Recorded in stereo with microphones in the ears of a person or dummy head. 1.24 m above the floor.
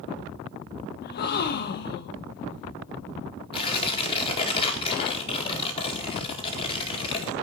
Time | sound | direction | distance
1.0 | a gasp | 55° left (ahead or behind) | 1.1 m
3.5 | tearing paper | 30° left (ahead or behind) | 1.8 m